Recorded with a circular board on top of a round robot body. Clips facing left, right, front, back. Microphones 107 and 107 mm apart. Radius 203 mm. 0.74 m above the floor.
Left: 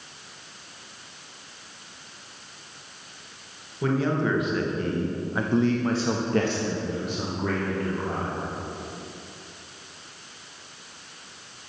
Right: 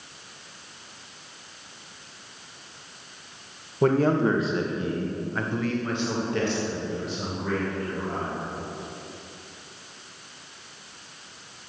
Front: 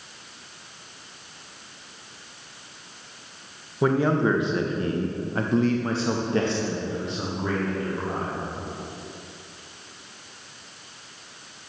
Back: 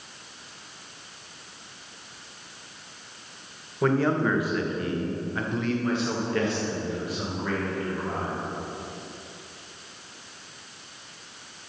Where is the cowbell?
No cowbell in this recording.